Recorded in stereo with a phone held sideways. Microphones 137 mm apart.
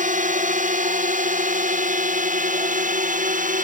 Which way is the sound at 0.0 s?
70° right (ahead or behind).